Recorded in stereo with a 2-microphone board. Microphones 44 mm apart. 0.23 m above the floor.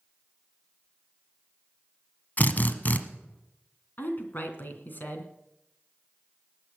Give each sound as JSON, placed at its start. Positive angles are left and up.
{"t": 2.4, "sound": "a drill", "side_deg": 40, "distance_m": 1.2}
{"t": 4.0, "sound": "a woman speaking", "side_deg": 45, "distance_m": 2.5}